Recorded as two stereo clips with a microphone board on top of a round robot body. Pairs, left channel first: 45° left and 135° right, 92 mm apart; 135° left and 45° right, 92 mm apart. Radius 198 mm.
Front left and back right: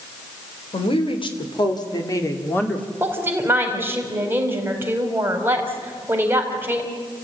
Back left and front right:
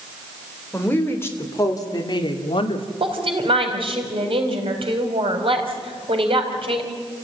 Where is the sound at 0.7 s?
60° left, 3.5 m; by 2.9 s 125° left, 2.5 m.